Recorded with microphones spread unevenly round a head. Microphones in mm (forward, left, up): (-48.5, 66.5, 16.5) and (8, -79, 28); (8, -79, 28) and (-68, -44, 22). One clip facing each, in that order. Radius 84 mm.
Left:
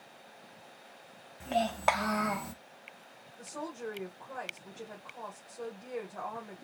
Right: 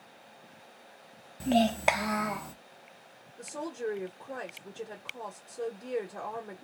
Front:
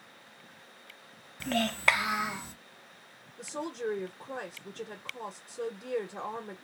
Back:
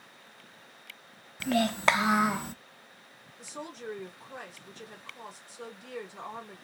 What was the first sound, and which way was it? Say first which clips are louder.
A child speaking: right 5 dB, back 3 dB; 120° right.